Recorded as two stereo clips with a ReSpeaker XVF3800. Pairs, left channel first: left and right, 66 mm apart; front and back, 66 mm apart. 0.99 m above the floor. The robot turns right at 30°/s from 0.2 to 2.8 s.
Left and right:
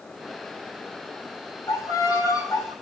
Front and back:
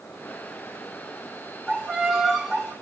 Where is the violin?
70° left, 7.5 m; by 2.7 s 100° left, 7.5 m.